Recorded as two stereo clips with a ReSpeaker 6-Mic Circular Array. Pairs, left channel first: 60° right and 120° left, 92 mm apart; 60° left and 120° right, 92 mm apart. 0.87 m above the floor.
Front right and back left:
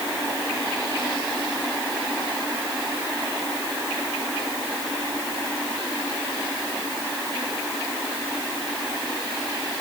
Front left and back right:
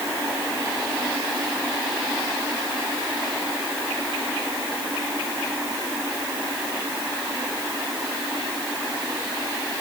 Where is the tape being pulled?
I don't hear tape being pulled.